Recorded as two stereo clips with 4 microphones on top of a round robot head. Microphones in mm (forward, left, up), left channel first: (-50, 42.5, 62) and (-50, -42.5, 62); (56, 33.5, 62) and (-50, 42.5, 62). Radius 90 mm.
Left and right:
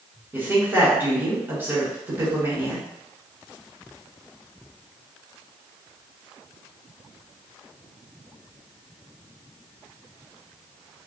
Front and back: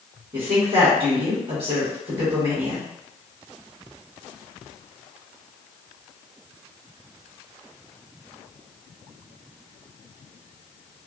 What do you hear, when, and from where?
0.3 s a woman speaking: 155° right, 1.9 m